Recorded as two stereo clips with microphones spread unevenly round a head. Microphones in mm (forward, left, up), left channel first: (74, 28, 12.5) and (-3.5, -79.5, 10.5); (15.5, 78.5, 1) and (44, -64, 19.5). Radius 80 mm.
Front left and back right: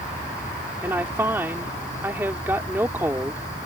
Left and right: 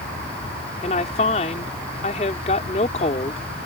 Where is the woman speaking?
155° left.